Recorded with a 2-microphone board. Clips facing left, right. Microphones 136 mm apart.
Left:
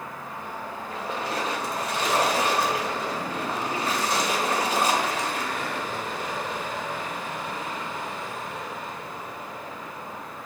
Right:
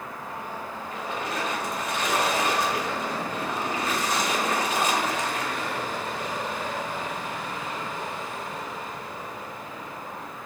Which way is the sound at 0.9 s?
35° left (ahead or behind).